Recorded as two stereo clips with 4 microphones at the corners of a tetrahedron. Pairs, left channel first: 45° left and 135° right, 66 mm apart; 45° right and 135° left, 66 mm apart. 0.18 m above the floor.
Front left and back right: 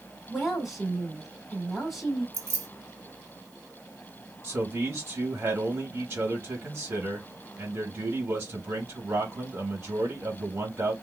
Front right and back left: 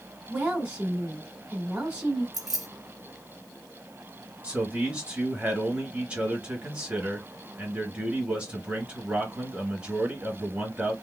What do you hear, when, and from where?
0.3 s a woman speaking: 145° left, 1.0 m
2.3 s keys jangling: 145° right, 1.3 m
4.4 s a man speaking: 170° right, 1.6 m